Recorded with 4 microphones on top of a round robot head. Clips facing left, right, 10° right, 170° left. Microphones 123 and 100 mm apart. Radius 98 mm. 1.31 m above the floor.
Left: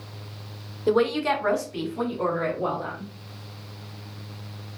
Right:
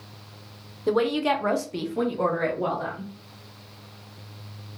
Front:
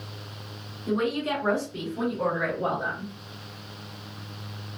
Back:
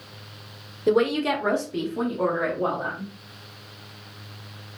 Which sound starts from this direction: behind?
A woman speaking, at 0.9 s.